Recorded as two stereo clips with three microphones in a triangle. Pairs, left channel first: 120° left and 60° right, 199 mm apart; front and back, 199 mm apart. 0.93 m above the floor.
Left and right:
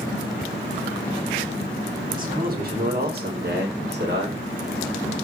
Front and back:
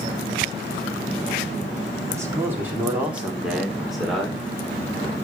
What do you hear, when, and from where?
2.1 s a man speaking: 105° right, 2.5 m; by 4.4 s 90° right, 4 m